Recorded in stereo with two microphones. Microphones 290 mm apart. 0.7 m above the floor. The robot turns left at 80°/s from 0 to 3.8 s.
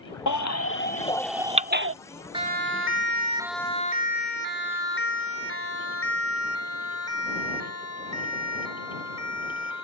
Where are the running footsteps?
I don't hear running footsteps.